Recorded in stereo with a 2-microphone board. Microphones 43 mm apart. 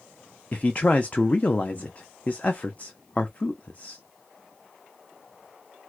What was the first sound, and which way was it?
A man speaking, 35° left (ahead or behind).